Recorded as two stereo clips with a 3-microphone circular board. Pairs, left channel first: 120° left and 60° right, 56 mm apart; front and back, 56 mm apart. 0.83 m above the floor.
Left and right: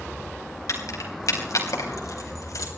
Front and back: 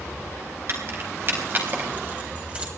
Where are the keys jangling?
140° left, 4 m; by 2.7 s 110° left, 4 m.